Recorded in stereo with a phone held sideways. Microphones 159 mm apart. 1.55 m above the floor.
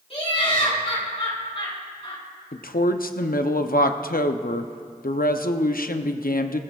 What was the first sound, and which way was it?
Laughter, 40° left (ahead or behind).